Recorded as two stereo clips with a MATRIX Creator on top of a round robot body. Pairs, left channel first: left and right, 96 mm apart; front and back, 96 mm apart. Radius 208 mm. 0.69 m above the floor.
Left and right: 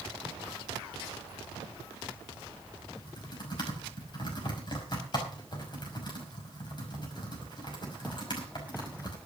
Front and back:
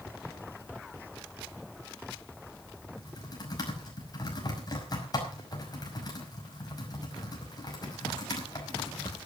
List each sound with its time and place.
3.0 s typing on a keyboard: 50° left, 5.5 m